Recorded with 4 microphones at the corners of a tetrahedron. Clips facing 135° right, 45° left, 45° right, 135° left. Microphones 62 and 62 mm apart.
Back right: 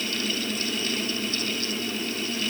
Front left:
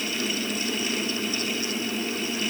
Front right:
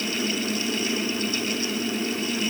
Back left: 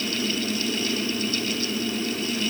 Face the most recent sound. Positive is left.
No sound to turn to.